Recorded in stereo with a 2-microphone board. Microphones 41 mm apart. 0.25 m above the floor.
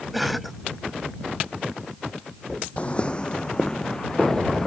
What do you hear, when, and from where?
0.1 s a cough: centre (ahead or behind)
2.8 s footsteps: 35° left (ahead or behind); by 4.7 s 15° left (ahead or behind)